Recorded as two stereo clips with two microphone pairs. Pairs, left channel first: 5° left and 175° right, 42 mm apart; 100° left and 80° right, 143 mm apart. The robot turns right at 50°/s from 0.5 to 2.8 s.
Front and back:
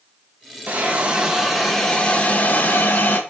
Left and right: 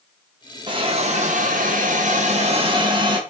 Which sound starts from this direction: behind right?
A hiss, at 0.7 s.